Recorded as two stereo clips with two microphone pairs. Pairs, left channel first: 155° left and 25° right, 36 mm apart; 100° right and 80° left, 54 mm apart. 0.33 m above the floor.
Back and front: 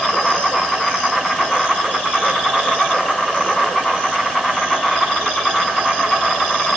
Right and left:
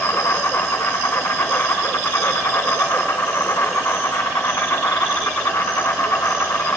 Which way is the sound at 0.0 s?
125° right.